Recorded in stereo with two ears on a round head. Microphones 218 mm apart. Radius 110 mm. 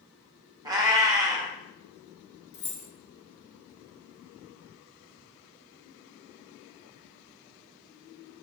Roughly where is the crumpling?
I don't hear crumpling.